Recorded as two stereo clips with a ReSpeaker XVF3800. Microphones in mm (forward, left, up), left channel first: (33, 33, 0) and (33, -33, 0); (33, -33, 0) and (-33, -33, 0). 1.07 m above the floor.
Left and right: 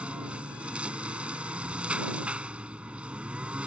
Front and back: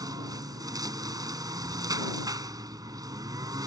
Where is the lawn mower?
160° right.